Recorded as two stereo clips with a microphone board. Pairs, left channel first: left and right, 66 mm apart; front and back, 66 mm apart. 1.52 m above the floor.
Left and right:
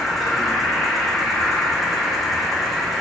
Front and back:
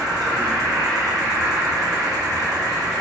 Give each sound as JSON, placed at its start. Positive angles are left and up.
{"t": 0.0, "sound": "an insect", "azimuth_deg": 180, "distance_m": 0.9}